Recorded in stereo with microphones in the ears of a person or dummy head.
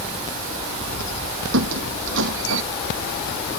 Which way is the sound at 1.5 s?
70° right (ahead or behind).